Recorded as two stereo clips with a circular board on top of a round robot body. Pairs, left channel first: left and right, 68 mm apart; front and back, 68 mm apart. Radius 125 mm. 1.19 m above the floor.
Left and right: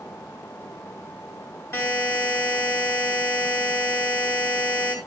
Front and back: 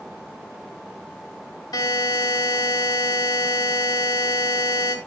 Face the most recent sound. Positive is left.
turn(degrees=35)